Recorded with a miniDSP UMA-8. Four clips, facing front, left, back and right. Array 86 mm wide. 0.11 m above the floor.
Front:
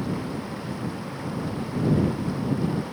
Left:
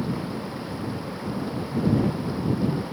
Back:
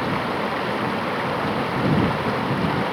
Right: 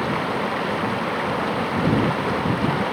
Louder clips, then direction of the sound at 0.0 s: Right 6 dB, back 7 dB; 135° right.